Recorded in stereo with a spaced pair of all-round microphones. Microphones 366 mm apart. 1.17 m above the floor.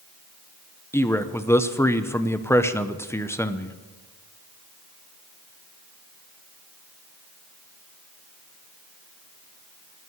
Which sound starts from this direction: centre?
A man speaking, at 0.9 s.